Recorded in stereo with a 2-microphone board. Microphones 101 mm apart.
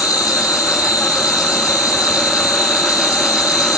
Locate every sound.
0.0 s an insect: 35° left (ahead or behind), 3.5 m